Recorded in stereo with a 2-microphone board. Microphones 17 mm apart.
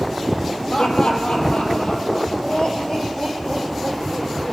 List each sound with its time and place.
0.7 s laughter: 65° left (ahead or behind), 3.5 m; by 4.5 s 55° left (ahead or behind), 5.5 m